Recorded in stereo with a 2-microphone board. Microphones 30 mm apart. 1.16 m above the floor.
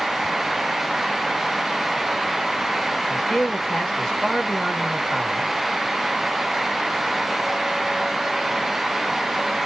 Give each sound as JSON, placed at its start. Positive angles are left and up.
{"t": 3.1, "sound": "a man speaking", "side_deg": 25, "distance_m": 1.5}